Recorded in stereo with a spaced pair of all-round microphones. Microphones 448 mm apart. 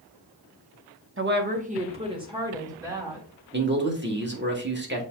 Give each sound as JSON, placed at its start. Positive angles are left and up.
{"t": 1.2, "sound": "a woman speaking", "side_deg": -30, "distance_m": 0.8}
{"t": 3.5, "sound": "a man speaking", "side_deg": -25, "distance_m": 1.4}